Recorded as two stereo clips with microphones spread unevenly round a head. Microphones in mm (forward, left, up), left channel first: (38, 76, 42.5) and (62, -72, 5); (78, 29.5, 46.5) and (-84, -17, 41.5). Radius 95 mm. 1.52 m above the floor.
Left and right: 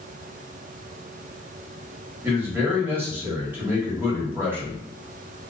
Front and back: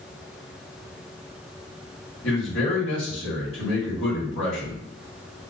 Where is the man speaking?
Straight ahead, 1.4 m.